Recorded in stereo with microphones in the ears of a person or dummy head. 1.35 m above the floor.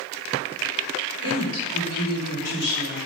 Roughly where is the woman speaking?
Left.